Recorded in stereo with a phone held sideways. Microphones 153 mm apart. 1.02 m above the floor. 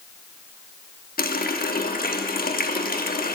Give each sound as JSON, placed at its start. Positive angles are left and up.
{"t": 1.2, "sound": "a running tap", "side_deg": 65, "distance_m": 1.2}